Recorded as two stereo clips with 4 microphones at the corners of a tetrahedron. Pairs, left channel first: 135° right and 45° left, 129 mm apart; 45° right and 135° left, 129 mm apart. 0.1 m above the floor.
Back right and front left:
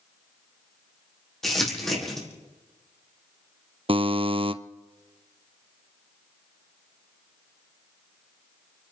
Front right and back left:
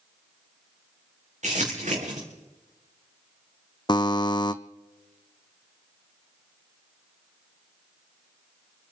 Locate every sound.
1.4 s crumpling: 140° left, 5 m
3.9 s a buzzer: 5° left, 0.7 m